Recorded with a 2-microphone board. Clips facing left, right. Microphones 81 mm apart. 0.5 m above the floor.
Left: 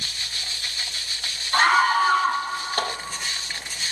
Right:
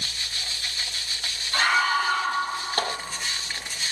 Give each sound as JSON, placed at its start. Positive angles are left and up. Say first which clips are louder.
{"t": 1.5, "sound": "a scream", "louder": "left 4 dB", "side_deg": 60, "distance_m": 4.0}